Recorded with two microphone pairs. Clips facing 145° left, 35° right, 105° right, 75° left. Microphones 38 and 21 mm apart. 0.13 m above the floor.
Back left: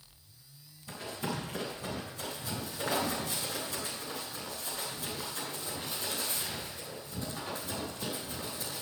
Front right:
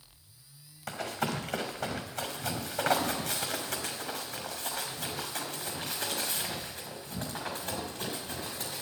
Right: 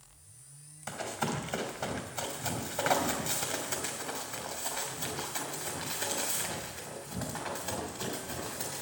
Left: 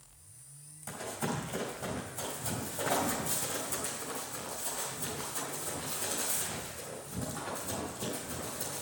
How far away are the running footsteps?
About 3.5 m.